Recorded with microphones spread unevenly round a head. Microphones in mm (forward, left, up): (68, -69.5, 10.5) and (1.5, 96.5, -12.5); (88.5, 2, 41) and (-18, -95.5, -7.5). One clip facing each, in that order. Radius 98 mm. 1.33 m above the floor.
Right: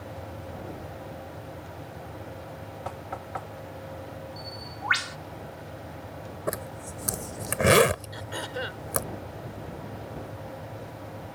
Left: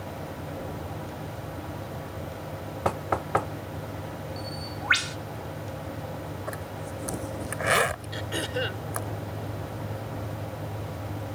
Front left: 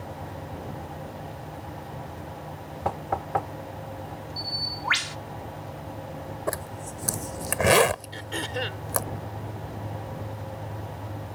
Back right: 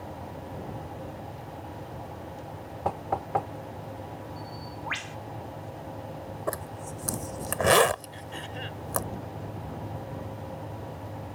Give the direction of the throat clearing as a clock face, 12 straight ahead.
10 o'clock.